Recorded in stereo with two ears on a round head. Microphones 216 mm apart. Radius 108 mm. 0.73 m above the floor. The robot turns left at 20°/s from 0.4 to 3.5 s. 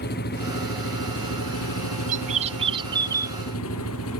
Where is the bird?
35° right (ahead or behind); by 3.4 s 10° right (ahead or behind).